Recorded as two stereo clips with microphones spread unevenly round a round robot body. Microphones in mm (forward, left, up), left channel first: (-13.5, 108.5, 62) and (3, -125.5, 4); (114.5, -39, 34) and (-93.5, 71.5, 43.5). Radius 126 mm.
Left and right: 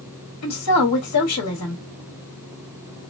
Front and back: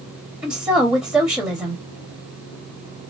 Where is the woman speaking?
70° left, 1.4 m.